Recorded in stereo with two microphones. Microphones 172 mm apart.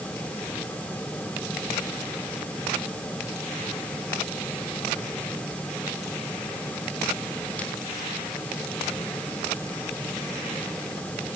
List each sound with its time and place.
Only background noise.